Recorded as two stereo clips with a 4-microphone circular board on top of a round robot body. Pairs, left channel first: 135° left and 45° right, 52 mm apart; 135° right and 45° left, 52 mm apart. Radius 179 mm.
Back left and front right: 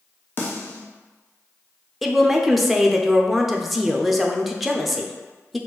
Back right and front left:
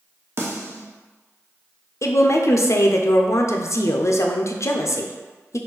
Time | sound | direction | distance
0.4 | a snare drum | 85° left | 0.9 m
2.0 | a woman speaking | 130° right | 0.6 m